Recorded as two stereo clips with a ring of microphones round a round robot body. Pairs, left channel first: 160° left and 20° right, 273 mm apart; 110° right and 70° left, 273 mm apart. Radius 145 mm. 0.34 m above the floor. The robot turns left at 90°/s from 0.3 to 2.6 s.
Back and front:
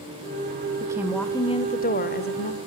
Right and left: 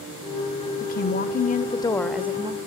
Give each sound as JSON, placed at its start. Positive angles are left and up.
{"t": 0.8, "sound": "a woman speaking", "azimuth_deg": -85, "distance_m": 1.3}